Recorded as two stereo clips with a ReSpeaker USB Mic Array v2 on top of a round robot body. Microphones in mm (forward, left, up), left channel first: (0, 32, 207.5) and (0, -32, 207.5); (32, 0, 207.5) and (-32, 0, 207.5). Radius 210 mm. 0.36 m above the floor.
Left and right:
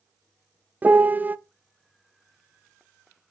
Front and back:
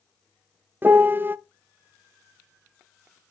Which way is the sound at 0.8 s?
140° right.